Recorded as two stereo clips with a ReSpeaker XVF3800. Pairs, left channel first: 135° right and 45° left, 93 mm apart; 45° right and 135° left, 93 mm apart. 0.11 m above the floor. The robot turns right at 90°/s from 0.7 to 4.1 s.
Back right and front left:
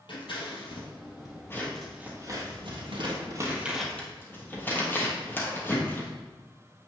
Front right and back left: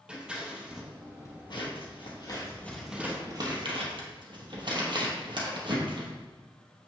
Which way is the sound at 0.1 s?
145° right.